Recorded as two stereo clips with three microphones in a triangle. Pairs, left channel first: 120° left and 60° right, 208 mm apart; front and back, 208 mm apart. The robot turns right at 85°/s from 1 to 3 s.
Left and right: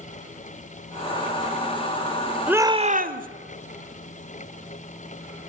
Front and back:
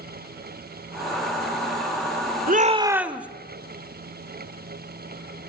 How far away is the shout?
About 1.5 m.